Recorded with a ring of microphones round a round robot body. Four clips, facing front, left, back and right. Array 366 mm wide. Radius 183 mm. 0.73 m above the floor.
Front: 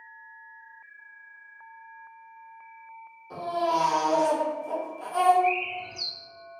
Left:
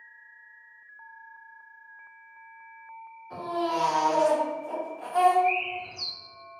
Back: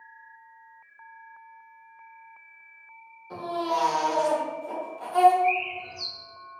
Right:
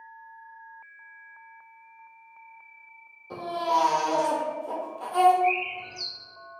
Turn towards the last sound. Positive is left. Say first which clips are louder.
# right 1 dB, back 1 dB
turn(degrees=-30)